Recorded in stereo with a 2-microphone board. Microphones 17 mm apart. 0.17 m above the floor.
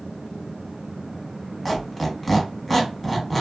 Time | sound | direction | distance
1.6 | a squeak | 5° right (ahead or behind) | 1.0 m